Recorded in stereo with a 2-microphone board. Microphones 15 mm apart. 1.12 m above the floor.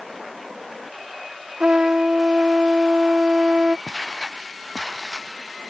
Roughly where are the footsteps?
Right.